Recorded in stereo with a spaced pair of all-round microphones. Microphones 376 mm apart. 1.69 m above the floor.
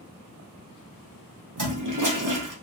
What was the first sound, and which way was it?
A toilet flushing, 60° right (ahead or behind).